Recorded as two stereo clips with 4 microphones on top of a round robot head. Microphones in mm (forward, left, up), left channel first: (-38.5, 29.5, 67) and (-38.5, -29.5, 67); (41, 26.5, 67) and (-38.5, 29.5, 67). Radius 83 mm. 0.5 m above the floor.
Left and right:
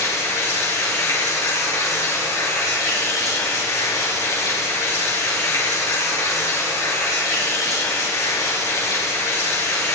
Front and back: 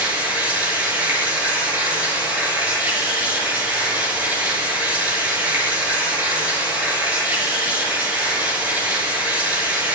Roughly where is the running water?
Left.